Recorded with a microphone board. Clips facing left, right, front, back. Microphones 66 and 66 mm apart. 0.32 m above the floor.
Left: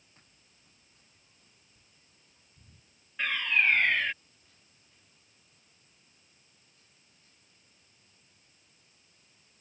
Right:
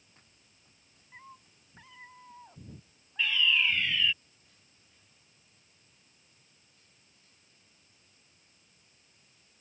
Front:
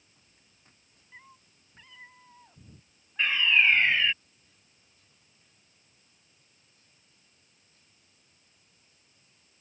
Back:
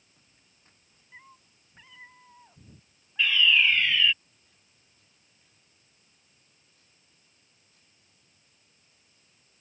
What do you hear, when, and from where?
1.1 s a cat meowing: 95° right; by 4.2 s 90° right
3.2 s a fire alarm: 55° left